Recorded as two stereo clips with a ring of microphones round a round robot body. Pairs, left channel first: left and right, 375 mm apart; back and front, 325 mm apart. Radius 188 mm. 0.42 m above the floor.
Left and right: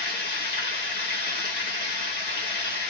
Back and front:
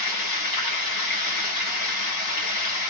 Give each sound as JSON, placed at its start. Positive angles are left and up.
{"t": 0.0, "sound": "running water", "azimuth_deg": 155, "distance_m": 2.5}